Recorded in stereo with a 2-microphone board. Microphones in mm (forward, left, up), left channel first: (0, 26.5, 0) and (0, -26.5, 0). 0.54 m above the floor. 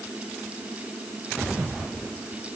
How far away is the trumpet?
I don't hear a trumpet.